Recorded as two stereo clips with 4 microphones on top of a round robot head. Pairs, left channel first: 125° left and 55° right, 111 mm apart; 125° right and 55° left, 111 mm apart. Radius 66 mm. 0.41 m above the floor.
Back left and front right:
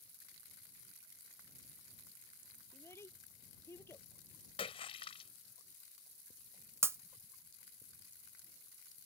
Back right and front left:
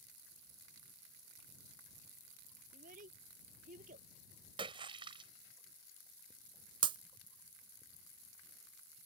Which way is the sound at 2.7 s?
55° left.